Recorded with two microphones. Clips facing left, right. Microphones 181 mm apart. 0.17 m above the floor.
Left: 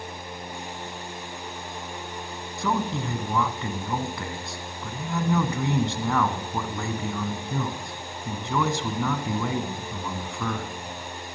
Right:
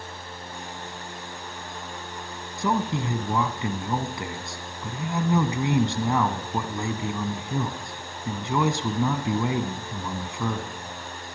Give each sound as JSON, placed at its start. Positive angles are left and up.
{"t": 2.6, "sound": "a man speaking", "side_deg": -15, "distance_m": 1.2}